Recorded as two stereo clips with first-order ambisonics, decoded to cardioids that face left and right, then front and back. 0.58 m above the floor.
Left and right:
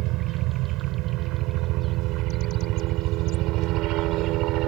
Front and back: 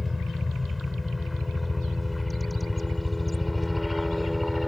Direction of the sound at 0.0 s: 80° right.